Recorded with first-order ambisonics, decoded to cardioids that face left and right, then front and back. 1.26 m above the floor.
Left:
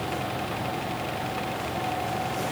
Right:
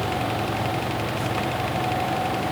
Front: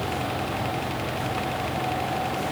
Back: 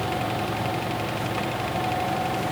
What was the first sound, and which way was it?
Only background noise.